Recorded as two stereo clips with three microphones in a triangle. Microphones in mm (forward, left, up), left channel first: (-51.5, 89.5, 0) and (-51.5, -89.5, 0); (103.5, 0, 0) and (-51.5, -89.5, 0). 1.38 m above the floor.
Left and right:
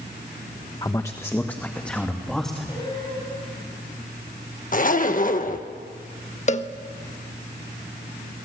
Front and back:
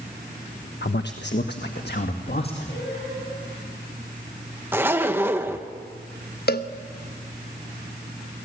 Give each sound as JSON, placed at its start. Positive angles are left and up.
{"t": 0.8, "sound": "a man speaking", "azimuth_deg": 25, "distance_m": 1.0}
{"t": 2.7, "sound": "singing", "azimuth_deg": 30, "distance_m": 8.0}
{"t": 4.7, "sound": "a zipper", "azimuth_deg": 135, "distance_m": 1.4}
{"t": 6.5, "sound": "a cowbell", "azimuth_deg": 45, "distance_m": 1.1}